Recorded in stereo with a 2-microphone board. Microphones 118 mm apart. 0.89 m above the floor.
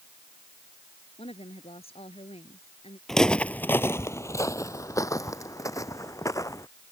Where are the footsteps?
Centre (ahead or behind); by 6.7 s 25° left (ahead or behind).